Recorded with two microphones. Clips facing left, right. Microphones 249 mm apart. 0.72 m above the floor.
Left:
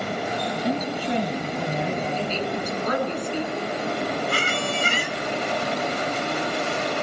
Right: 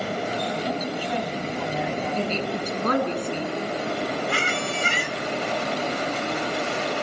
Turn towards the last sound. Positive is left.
turn(degrees=40)  # may be behind; listen again after turning